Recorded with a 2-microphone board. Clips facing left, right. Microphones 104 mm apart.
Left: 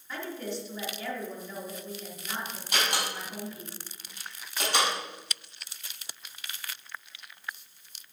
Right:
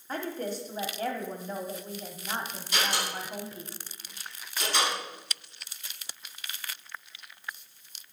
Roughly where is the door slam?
Left.